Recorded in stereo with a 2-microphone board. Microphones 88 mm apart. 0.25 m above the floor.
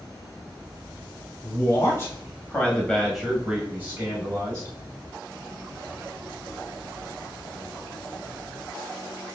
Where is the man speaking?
35° left (ahead or behind), 1.8 m; by 4.8 s 40° right (ahead or behind), 1.5 m.